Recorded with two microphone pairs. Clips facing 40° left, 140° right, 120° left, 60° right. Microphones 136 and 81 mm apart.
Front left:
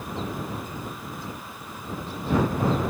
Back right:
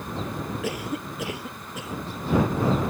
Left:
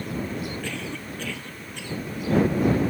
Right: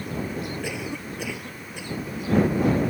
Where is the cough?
140° right.